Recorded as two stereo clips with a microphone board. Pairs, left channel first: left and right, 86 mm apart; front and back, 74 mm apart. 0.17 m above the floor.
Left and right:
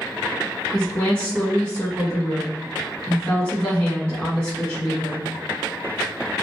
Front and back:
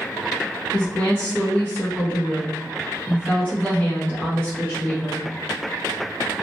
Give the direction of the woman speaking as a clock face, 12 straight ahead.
11 o'clock.